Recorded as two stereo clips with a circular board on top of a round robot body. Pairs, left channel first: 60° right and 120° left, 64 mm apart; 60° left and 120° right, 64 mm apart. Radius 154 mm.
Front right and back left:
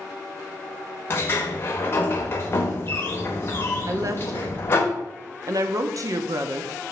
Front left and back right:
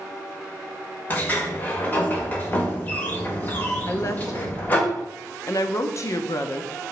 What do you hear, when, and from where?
1.1 s a sliding door: 5° right, 0.7 m
3.9 s a woman speaking: 95° left, 1.0 m